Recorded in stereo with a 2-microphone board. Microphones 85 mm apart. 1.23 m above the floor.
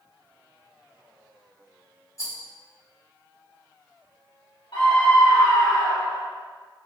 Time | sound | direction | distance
2.2 | a rattle | 35° left (ahead or behind) | 1.3 m
4.7 | a scream | 65° left (ahead or behind) | 1.2 m